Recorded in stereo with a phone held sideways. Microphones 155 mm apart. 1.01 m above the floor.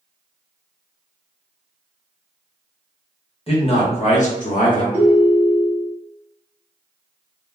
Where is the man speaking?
40° left (ahead or behind), 1.2 m; by 4.8 s 65° left (ahead or behind), 0.9 m.